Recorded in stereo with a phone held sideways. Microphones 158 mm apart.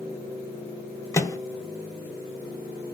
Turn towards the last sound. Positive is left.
turn(degrees=20)  # may be behind; listen again after turning